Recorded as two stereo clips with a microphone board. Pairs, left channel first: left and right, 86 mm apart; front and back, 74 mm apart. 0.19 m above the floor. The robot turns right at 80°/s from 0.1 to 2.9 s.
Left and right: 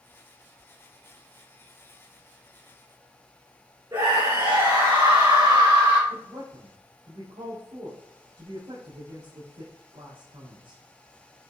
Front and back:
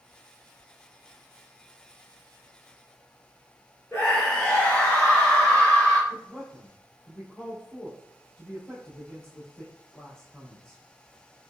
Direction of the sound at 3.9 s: 55° right.